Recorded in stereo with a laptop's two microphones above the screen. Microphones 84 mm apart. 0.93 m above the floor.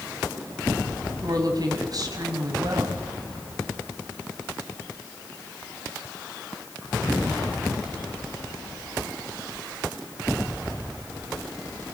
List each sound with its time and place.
1.2 s a woman speaking: 50° right (ahead or behind), 6.5 m